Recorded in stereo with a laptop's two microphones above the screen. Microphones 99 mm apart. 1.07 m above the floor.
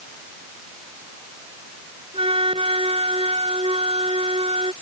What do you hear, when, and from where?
2.1 s a flute: 80° right